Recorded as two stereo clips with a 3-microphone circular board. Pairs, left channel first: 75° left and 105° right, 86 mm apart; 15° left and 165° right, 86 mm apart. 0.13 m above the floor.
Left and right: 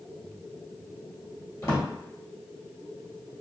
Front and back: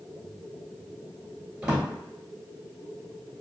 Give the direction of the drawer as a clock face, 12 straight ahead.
8 o'clock.